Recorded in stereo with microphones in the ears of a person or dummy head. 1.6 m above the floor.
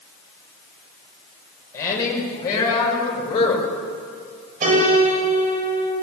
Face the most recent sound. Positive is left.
turn(degrees=-45)  # may be behind; listen again after turning